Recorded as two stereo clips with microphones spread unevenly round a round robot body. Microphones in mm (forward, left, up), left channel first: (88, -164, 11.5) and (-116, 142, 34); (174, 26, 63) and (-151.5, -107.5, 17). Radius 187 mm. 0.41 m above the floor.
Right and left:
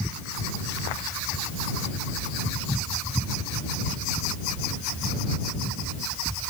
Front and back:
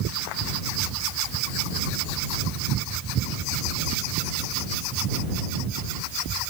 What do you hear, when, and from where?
Only background noise.